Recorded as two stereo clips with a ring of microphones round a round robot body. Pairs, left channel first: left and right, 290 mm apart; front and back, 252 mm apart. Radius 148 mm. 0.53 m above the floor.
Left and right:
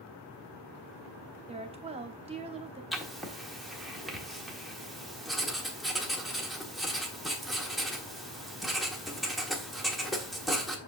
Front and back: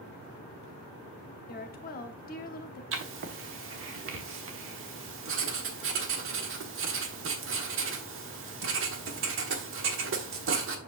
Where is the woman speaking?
30° right, 0.9 m.